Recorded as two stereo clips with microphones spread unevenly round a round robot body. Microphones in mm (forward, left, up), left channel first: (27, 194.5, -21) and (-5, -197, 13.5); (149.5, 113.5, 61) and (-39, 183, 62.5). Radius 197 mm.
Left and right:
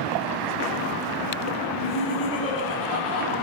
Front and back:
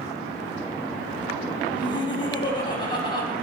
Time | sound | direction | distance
1.7 | laughter | 50° left | 4.5 m